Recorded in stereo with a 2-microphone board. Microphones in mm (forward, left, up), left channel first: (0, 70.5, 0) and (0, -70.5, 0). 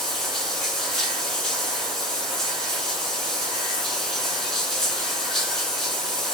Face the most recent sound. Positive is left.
turn(degrees=5)  # may be behind; listen again after turning